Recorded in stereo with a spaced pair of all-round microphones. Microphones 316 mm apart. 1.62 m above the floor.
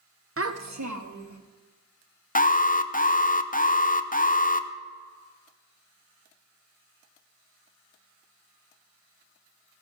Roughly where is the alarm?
Left.